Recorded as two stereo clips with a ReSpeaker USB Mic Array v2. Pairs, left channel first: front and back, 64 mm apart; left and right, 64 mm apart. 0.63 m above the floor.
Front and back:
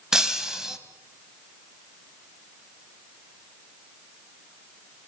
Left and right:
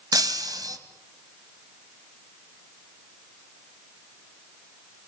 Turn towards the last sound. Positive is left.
turn(degrees=-100)